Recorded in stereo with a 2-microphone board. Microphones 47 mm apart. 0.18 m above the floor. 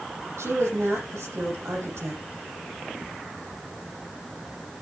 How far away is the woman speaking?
About 7.5 m.